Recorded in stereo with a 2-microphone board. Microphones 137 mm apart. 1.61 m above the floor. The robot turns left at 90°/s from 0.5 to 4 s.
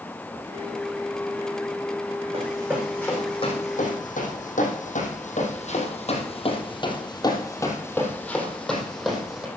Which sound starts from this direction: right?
Running footsteps, at 2.3 s.